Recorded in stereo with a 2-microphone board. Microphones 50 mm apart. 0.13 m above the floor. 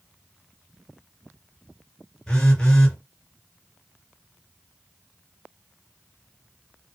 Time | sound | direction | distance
2.3 | a phone buzzing | 15° left (ahead or behind) | 2 m